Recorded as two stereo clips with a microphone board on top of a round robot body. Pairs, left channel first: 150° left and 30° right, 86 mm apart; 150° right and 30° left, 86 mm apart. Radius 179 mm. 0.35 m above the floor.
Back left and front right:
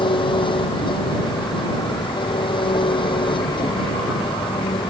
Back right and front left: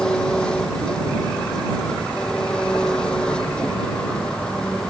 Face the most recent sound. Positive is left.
turn(degrees=130)